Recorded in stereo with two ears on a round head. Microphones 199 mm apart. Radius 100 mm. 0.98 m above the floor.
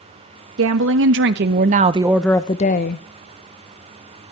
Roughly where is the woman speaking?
Right.